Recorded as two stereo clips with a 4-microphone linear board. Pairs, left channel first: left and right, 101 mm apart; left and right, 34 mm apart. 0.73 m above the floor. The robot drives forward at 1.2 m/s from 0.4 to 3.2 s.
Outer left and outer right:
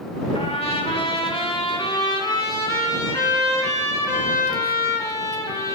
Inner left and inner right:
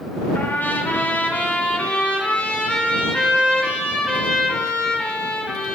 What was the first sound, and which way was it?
A trumpet, 75° left (ahead or behind).